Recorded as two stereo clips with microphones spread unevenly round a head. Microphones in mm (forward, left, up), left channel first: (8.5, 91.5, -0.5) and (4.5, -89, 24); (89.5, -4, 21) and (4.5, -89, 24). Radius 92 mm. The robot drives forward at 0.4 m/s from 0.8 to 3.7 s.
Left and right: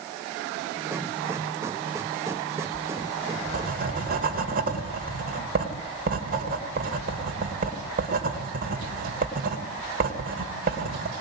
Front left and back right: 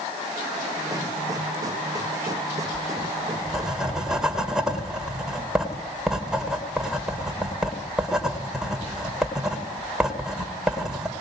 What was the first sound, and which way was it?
Writing, 45° right.